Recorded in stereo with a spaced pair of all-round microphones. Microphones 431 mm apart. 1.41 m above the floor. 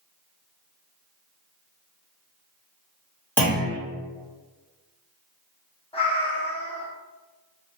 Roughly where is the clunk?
Centre.